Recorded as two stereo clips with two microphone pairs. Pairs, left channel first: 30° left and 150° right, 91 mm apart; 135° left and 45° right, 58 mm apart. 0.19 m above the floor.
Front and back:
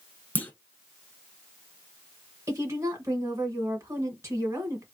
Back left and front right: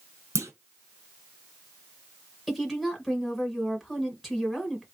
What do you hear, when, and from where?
0.3 s a clunk: 35° right, 0.8 m
2.5 s a woman speaking: 125° right, 1.1 m